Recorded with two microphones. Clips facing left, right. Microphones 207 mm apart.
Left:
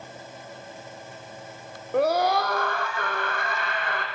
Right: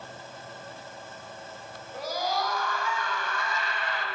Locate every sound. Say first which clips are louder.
1.9 s a scream: left 10 dB; 65° left (ahead or behind), 4.5 m; by 4.0 s 55° left (ahead or behind), 7.5 m